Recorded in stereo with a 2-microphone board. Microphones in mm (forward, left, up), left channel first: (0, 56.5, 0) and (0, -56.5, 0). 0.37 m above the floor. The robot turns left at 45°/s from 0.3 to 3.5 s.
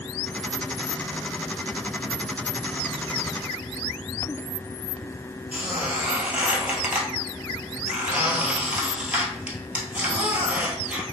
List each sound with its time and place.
5.5 s a squeak: 15° right (ahead or behind), 1.0 m